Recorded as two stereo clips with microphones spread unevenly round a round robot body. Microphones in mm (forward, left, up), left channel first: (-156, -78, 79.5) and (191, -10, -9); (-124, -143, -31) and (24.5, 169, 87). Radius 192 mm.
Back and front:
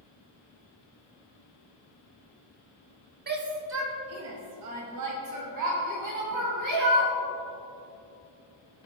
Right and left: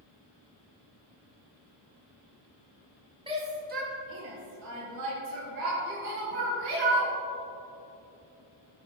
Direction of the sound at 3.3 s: 25° right.